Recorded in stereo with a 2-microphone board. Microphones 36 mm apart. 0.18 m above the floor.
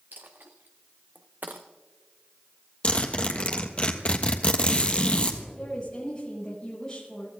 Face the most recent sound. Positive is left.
turn(degrees=20)  # may be behind; listen again after turning